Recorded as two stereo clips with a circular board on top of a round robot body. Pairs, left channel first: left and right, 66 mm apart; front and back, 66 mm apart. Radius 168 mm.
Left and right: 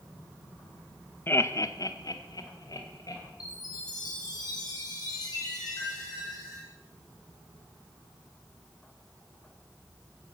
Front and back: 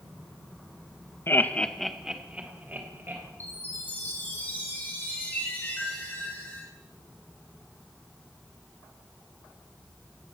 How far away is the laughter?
About 1.2 m.